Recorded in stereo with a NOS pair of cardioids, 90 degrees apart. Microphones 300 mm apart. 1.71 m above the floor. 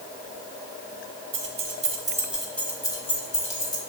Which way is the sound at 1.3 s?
45° right.